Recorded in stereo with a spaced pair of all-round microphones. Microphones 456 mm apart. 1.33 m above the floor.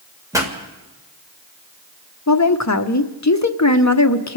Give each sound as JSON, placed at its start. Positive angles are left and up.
{"t": 0.3, "sound": "a pop", "side_deg": -5, "distance_m": 2.0}
{"t": 2.3, "sound": "a woman speaking", "side_deg": 35, "distance_m": 0.8}